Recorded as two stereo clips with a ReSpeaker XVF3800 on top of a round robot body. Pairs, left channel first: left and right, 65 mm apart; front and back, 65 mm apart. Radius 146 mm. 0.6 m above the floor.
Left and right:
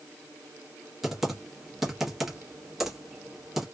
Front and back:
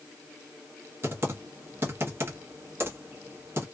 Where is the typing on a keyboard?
175° right, 1.2 m.